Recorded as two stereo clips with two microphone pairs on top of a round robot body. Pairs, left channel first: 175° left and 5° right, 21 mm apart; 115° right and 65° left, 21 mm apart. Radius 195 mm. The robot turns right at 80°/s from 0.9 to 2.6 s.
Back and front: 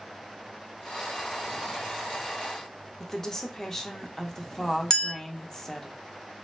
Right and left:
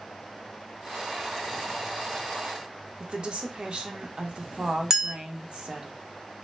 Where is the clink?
135° left, 0.7 m.